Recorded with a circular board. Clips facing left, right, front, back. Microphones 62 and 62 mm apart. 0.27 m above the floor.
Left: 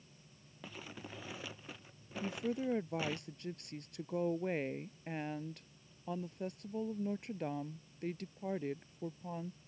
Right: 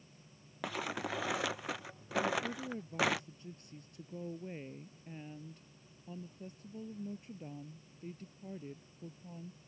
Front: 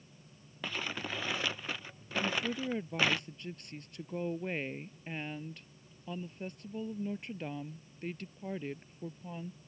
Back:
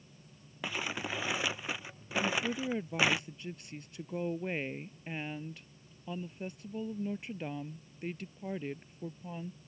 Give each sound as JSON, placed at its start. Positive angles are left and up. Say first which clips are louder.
{"t": 0.6, "sound": "crumpling", "louder": "right 11 dB, back 2 dB", "azimuth_deg": -100}
{"t": 2.2, "sound": "a woman speaking", "louder": "left 3 dB, back 1 dB", "azimuth_deg": 95}